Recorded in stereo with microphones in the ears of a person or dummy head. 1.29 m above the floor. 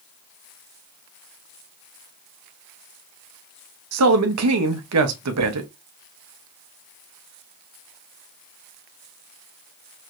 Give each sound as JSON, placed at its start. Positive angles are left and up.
{"t": 3.9, "sound": "a man speaking", "side_deg": -80, "distance_m": 0.7}